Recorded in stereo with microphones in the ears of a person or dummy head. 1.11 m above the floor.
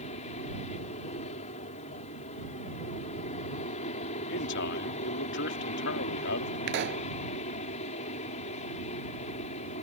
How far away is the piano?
I don't hear a piano.